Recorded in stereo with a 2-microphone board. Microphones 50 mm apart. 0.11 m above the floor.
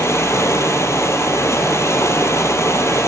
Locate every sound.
0.0 s running water: 70° left (ahead or behind), 0.9 m